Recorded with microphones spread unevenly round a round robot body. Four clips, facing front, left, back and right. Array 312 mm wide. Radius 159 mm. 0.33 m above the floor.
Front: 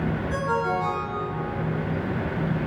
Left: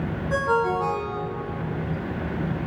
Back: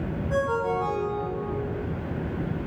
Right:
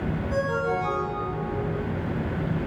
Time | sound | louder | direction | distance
0.3 | a ringtone | left 4 dB, back 2 dB | 75° left | 6.5 m